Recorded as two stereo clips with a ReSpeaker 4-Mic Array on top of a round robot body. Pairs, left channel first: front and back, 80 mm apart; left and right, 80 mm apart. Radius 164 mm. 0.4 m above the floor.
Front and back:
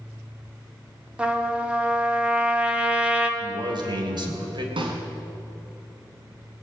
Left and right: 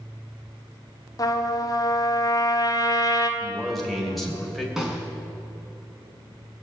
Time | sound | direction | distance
1.2 | a trumpet | 110° left | 1.8 m
3.4 | a man speaking | straight behind | 3 m
4.8 | a snare drum | 175° right | 2.5 m